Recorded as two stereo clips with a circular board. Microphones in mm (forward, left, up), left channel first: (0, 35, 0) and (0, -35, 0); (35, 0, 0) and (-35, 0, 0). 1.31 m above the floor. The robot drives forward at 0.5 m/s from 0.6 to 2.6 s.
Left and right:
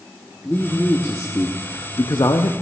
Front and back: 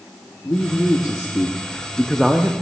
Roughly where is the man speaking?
Ahead left.